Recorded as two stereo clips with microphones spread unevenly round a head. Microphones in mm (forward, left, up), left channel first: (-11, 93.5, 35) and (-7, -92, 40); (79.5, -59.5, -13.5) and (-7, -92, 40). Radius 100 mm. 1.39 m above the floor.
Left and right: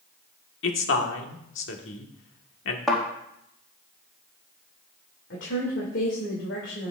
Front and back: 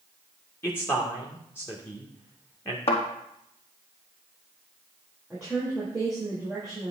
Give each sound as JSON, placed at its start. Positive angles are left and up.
{"t": 0.6, "sound": "a man speaking", "azimuth_deg": 90, "distance_m": 1.7}
{"t": 2.9, "sound": "a thud", "azimuth_deg": 5, "distance_m": 4.0}
{"t": 5.3, "sound": "a woman speaking", "azimuth_deg": 115, "distance_m": 2.5}